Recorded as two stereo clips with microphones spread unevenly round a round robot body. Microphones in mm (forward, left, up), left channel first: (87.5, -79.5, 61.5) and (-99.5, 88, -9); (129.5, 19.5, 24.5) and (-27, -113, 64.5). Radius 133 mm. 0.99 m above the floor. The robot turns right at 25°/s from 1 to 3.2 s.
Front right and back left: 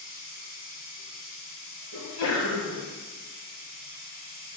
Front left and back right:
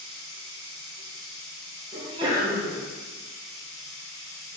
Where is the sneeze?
75° right, 1.2 m; by 2.8 s 55° right, 1.2 m.